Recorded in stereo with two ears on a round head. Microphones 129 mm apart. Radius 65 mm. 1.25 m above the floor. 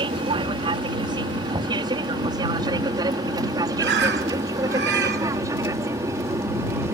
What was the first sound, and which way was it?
An aircraft, 35° right (ahead or behind).